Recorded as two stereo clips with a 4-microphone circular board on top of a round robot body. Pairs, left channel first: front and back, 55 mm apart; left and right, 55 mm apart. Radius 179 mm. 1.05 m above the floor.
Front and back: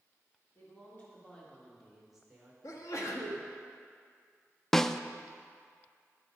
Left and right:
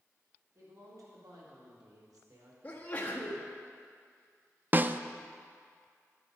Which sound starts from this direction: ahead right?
A woman speaking, at 0.6 s.